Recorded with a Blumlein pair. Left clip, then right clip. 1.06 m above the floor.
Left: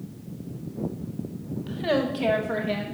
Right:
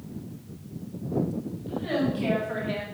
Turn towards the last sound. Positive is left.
turn(degrees=5)